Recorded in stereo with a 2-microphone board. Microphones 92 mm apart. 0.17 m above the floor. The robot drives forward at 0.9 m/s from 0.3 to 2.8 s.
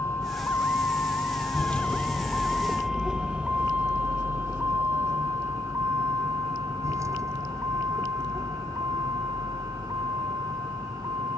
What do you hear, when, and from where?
0.0 s a vehicle: 30° left (ahead or behind); by 11.4 s 40° right (ahead or behind)